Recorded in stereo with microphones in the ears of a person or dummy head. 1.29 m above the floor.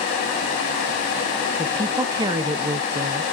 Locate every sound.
1.6 s a woman speaking: 20° right (ahead or behind), 1.2 m